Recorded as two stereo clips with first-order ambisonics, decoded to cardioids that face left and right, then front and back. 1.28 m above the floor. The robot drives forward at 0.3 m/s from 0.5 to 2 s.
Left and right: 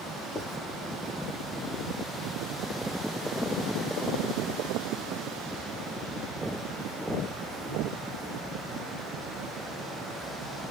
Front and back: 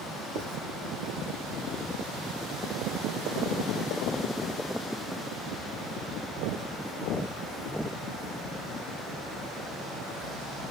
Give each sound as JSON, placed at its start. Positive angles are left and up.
{"t": 0.3, "sound": "writing", "azimuth_deg": 170, "distance_m": 0.9}